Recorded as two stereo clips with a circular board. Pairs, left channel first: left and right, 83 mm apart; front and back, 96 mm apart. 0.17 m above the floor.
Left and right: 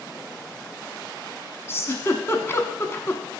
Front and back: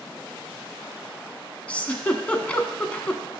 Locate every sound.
1.7 s a giggle: 65° left, 0.8 m